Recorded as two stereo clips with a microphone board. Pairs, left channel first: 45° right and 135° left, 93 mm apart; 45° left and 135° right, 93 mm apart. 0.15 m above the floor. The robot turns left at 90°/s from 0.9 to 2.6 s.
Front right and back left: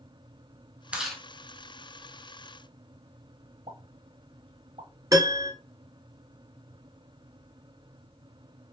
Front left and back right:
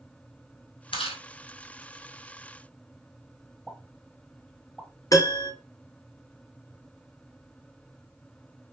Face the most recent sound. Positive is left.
turn(degrees=90)